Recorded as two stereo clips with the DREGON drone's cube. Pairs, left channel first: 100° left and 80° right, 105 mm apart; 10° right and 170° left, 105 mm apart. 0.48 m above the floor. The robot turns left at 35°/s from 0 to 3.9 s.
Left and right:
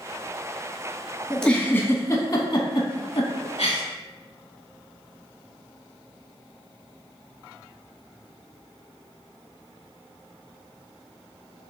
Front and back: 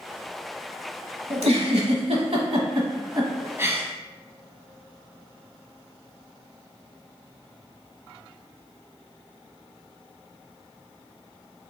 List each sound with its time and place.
1.3 s a giggle: 175° right, 0.9 m; by 3.8 s 100° left, 0.9 m